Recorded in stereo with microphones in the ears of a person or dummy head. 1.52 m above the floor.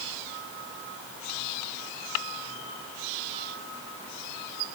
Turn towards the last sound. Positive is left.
No sound to turn to.